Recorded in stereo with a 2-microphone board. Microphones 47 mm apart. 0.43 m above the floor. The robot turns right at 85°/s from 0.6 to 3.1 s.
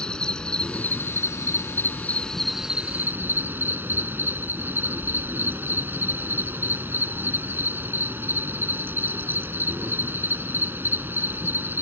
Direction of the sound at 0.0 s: 15° left.